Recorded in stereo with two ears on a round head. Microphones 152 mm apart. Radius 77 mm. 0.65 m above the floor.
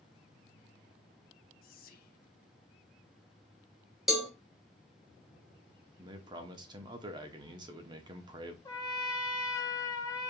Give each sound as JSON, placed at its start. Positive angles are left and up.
{"t": 1.6, "sound": "whispering", "side_deg": 55, "distance_m": 0.9}
{"t": 4.1, "sound": "a cowbell", "side_deg": 0, "distance_m": 1.2}
{"t": 6.0, "sound": "a man speaking", "side_deg": -25, "distance_m": 1.0}
{"t": 8.7, "sound": "a trumpet", "side_deg": 20, "distance_m": 1.1}